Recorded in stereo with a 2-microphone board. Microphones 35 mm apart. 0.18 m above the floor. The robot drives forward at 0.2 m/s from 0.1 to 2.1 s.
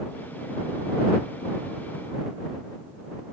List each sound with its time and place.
Only background noise.